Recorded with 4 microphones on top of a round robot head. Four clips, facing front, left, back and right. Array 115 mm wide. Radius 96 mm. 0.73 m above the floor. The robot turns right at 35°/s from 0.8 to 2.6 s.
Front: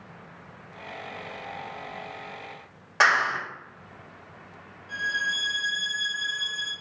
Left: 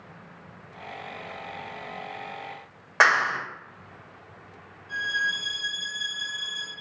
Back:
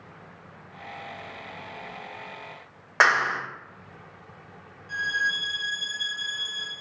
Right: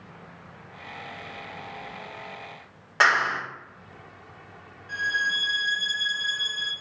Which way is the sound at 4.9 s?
110° right.